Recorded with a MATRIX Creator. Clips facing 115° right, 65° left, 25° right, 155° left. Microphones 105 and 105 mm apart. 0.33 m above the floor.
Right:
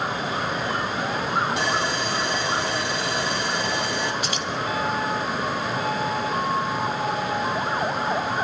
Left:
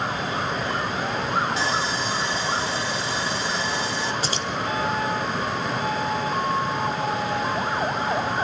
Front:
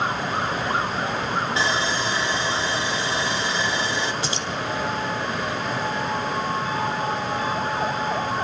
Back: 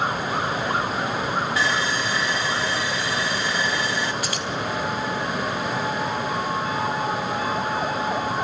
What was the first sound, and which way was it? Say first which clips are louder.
Sawing: right 1 dB, even; 90° right.